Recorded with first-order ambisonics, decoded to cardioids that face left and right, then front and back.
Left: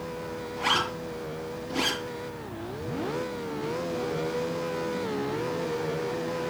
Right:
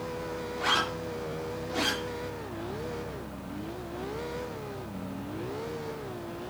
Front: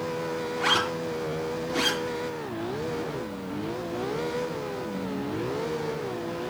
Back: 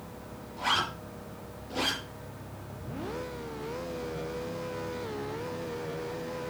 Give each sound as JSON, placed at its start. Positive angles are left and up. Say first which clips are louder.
{"t": 0.6, "sound": "a zipper", "louder": "left 2 dB, front 4 dB", "azimuth_deg": -10, "distance_m": 5.5}